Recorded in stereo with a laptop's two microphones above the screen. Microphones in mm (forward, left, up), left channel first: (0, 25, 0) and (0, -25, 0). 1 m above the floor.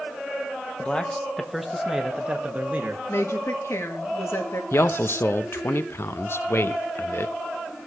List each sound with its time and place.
0.8 s a man speaking: 20° left (ahead or behind), 1.3 m; by 3.0 s 35° right (ahead or behind), 1.9 m
3.1 s a woman speaking: 65° left (ahead or behind), 1.8 m
4.7 s a man speaking: 55° left (ahead or behind), 0.6 m